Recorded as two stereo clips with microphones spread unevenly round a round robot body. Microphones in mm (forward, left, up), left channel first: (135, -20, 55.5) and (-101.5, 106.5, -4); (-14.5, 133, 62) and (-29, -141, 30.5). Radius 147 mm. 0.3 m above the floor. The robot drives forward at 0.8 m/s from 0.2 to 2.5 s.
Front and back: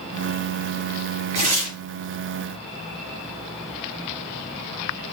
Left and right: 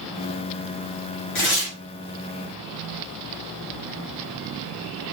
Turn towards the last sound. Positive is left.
turn(degrees=140)